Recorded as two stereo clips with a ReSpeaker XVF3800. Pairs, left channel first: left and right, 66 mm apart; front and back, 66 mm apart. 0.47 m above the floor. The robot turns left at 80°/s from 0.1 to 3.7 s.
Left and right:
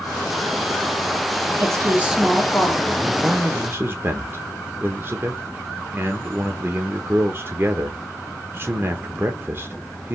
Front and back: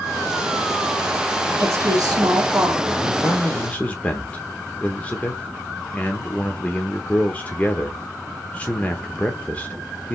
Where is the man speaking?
5° right, 0.9 m; by 10.2 s 60° right, 0.9 m.